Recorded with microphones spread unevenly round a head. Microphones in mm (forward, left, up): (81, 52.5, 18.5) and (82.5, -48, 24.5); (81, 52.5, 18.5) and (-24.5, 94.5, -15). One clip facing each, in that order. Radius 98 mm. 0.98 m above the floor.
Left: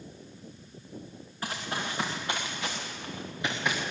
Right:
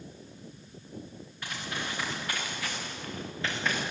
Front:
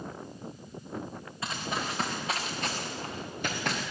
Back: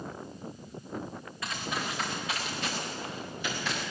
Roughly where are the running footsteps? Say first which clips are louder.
Left 3 dB, front 1 dB; ahead left.